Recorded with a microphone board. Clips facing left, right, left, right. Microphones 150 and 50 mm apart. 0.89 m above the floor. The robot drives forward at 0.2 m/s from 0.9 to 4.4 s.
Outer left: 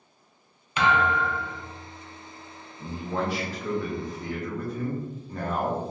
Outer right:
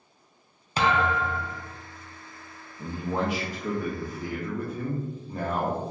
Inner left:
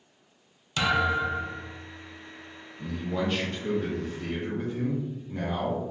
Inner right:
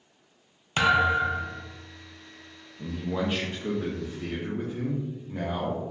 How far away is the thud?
About 0.6 m.